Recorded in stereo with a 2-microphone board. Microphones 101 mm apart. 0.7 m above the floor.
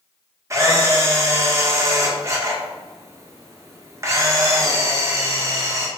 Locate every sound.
0.5 s a camera shutter: 30° right (ahead or behind), 0.5 m